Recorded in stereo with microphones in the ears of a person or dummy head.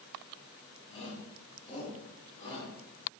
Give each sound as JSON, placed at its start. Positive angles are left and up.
{"t": 0.9, "sound": "a shout", "side_deg": 30, "distance_m": 2.5}